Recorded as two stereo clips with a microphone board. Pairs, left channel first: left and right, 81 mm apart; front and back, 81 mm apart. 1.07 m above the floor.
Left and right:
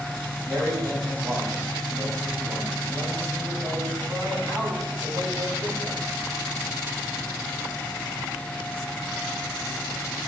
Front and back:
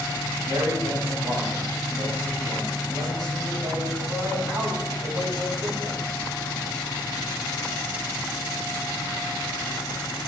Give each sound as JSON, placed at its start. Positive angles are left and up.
{"t": 0.5, "sound": "a man speaking", "azimuth_deg": -150, "distance_m": 6.5}